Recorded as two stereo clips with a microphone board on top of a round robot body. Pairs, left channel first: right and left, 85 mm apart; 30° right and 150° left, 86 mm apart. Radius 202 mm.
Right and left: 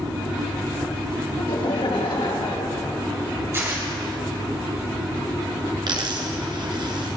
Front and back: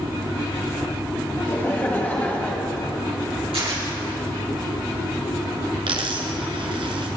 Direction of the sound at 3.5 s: 150° left.